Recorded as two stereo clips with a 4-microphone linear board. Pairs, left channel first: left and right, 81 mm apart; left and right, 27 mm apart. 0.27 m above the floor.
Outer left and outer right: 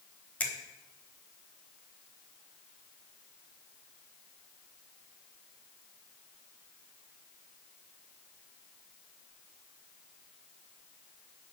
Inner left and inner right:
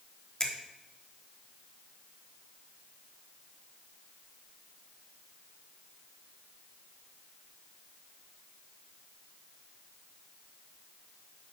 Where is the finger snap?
20° left (ahead or behind), 1.0 m.